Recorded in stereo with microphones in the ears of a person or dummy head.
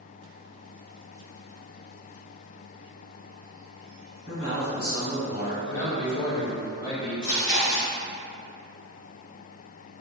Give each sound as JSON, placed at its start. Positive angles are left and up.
{"t": 4.2, "sound": "a man speaking", "side_deg": 45, "distance_m": 1.9}
{"t": 5.6, "sound": "a man speaking", "side_deg": 20, "distance_m": 1.0}
{"t": 7.2, "sound": "chewing", "side_deg": 55, "distance_m": 1.1}